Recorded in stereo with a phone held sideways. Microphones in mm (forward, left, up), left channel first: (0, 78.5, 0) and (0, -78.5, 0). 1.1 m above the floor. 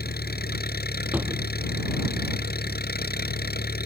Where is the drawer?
10° right (ahead or behind).